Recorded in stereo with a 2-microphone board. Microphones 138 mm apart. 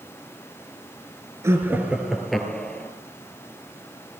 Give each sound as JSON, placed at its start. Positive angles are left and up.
{"t": 1.4, "sound": "laughter", "side_deg": -20, "distance_m": 2.0}